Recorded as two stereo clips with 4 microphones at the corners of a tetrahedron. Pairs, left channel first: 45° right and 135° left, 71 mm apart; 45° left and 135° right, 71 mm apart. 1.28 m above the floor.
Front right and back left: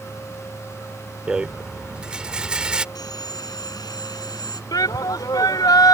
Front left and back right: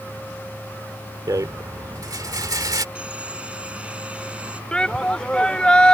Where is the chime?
I don't hear a chime.